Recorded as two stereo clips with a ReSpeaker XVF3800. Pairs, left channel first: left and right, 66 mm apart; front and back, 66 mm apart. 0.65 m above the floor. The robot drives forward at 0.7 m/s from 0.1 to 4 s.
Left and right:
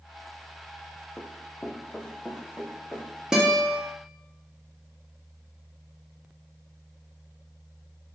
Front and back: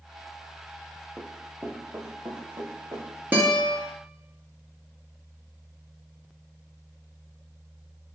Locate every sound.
1.2 s running footsteps: 120° left, 0.7 m; by 3.2 s 170° left, 3.5 m
3.3 s a guitar: 155° right, 0.9 m; by 3.8 s 165° right, 1.1 m